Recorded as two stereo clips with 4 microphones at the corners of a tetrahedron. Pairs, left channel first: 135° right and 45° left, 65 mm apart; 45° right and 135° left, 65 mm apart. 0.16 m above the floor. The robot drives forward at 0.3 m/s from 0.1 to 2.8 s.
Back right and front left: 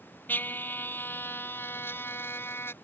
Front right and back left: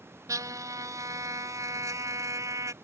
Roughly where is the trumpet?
Behind.